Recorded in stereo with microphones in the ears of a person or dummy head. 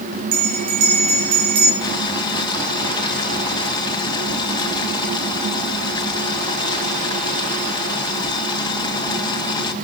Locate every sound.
0.3 s a bell: 85° right, 4 m
1.8 s boiling: 25° left (ahead or behind), 1.8 m